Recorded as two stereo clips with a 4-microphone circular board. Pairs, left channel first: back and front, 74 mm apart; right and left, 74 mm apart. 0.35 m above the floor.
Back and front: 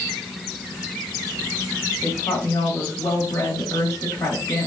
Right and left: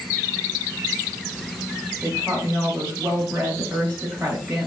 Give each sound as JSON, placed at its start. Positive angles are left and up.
{"t": 2.0, "sound": "a woman speaking", "azimuth_deg": 150, "distance_m": 2.0}